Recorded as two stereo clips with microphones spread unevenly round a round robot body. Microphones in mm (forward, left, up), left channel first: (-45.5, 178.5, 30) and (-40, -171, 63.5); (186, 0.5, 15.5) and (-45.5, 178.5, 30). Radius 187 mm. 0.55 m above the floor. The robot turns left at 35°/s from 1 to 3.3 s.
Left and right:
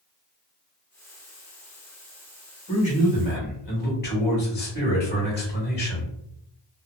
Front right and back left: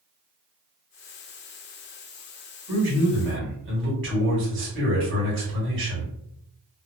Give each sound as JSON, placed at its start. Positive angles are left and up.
{"t": 2.7, "sound": "a man speaking", "azimuth_deg": 145, "distance_m": 1.5}